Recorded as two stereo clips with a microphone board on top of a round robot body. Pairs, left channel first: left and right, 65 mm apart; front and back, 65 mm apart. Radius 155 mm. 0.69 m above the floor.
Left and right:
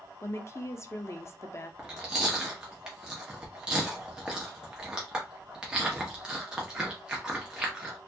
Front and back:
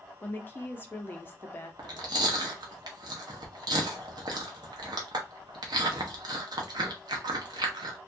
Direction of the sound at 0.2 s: 50° left.